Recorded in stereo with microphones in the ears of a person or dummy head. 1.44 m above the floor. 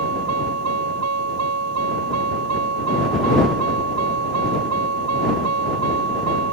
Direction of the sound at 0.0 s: 80° right.